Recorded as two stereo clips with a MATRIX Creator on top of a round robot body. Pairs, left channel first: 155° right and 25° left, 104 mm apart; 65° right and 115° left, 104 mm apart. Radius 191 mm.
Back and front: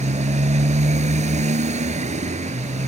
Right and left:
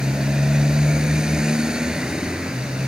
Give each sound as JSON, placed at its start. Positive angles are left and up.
{"t": 0.0, "sound": "a motorcycle", "azimuth_deg": 30}